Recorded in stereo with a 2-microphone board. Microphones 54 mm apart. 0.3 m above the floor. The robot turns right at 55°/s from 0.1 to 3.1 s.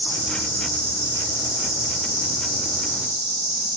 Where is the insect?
175° right, 5 m; by 3.8 s 10° right, 5 m.